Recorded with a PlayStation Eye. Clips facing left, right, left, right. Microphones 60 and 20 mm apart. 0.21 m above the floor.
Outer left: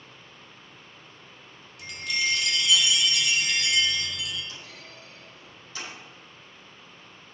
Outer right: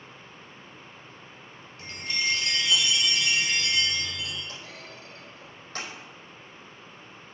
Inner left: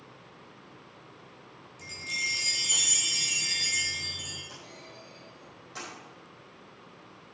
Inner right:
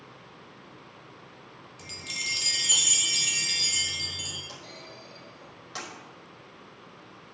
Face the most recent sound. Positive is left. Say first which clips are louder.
# outer right 2 dB, inner right 3 dB
turn(degrees=-60)  # may be behind; listen again after turning